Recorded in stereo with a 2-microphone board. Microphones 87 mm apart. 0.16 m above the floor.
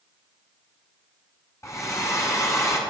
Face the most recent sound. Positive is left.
turn(degrees=35)  # may be behind; listen again after turning